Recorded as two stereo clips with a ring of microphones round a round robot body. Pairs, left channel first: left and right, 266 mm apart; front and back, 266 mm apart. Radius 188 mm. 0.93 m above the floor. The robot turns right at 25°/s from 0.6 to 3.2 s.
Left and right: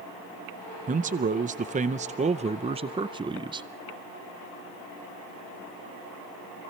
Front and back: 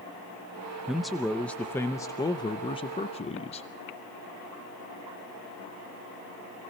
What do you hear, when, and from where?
0.9 s a man speaking: 95° right, 0.6 m; by 3.7 s 35° right, 0.6 m